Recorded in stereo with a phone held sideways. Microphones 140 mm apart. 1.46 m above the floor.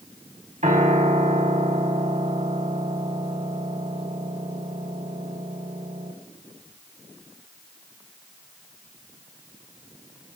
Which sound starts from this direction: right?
A piano, at 0.6 s.